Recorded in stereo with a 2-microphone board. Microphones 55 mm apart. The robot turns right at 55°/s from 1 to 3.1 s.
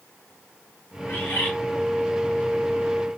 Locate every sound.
1.1 s a bird: 45° left (ahead or behind), 3 m; by 1.5 s 25° left (ahead or behind), 3 m